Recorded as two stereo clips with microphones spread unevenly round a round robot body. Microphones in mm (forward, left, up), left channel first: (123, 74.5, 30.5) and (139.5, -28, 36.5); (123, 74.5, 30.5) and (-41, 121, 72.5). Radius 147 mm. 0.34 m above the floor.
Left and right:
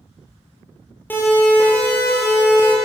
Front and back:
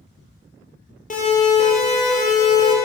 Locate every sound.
1.1 s a siren: 25° left, 10 m; by 2.8 s 30° left, 9 m